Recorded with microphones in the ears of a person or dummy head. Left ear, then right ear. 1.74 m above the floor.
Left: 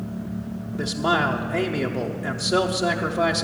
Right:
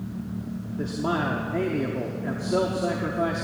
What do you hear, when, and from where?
0.8 s a man speaking: 45° left (ahead or behind), 0.8 m